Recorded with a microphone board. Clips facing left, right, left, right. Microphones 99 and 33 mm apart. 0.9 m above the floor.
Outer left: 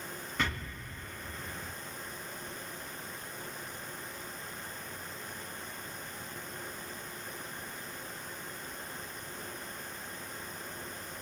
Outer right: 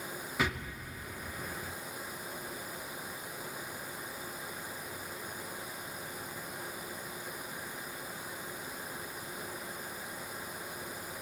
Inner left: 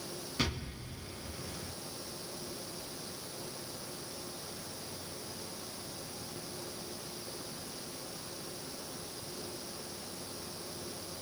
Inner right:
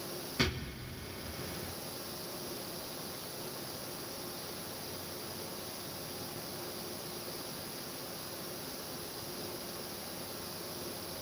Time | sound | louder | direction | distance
0.4 | an explosion | outer right 2 dB, inner right 2 dB | 5° right (ahead or behind) | 2.5 m